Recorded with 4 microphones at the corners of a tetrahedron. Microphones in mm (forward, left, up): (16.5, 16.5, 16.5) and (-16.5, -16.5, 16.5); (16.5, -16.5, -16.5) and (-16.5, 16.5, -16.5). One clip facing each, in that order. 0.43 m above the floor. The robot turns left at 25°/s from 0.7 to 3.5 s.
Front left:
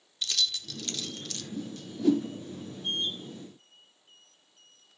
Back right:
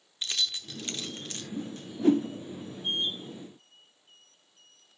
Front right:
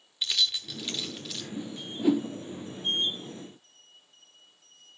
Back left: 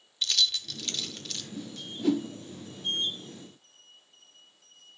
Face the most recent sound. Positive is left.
turn(degrees=-150)